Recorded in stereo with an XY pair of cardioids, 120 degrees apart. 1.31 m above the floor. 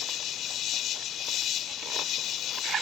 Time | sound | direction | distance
0.0 | an insect | 60° left | ?